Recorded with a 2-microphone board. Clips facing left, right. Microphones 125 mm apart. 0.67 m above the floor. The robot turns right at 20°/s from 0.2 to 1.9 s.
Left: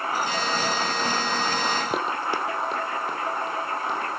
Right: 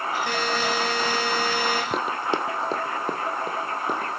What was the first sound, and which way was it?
A buzzer, 105° right.